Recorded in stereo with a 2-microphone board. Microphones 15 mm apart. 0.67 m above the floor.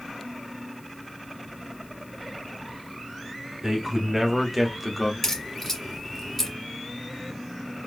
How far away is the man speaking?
About 1.6 m.